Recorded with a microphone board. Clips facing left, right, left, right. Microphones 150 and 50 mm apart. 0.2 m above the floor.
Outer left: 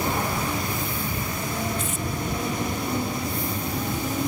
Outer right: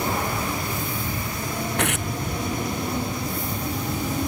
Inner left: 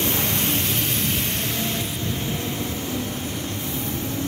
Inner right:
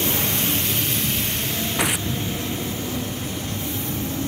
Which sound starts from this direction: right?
Tearing paper, at 1.8 s.